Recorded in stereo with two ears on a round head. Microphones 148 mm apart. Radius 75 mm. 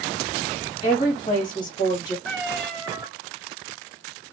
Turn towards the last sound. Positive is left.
turn(degrees=0)  # may be behind; listen again after turning